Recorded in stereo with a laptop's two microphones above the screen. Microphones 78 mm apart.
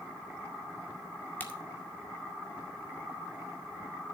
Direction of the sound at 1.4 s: 25° left (ahead or behind).